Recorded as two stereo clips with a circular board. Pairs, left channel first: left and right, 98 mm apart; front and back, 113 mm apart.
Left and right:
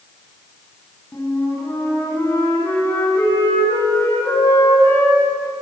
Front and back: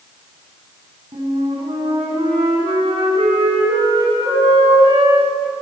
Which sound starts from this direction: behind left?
A flute, at 1.1 s.